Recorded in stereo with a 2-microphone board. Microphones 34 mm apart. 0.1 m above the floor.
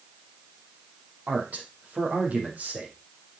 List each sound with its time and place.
1.3 s a man speaking: 50° right (ahead or behind), 4.5 m